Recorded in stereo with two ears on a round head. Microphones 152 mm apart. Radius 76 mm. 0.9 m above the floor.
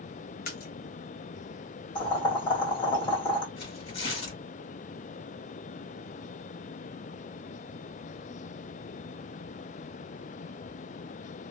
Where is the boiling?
30° left (ahead or behind), 1.7 m.